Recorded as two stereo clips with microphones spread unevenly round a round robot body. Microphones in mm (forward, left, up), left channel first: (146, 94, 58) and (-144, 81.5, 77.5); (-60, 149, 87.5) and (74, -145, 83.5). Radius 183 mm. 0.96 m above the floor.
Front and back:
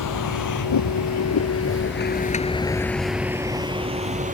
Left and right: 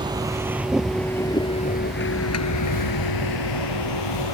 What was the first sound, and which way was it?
A vehicle, 10° left.